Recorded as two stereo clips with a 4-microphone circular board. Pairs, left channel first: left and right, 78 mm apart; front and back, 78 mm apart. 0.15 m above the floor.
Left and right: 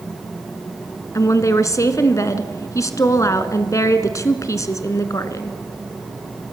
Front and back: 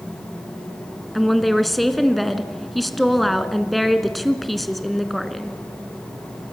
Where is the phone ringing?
I don't hear a phone ringing.